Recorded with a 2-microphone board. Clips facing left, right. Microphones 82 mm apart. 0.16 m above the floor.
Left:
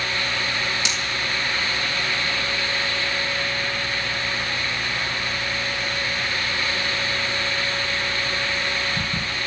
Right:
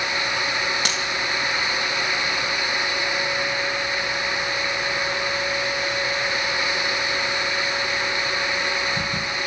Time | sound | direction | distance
0.8 | a dropped coin | 55° right (ahead or behind) | 3.5 m